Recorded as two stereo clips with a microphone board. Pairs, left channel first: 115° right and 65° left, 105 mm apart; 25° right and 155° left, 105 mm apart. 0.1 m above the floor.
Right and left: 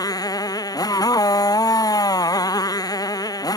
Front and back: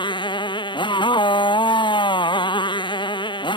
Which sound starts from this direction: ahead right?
A motorcycle, at 0.0 s.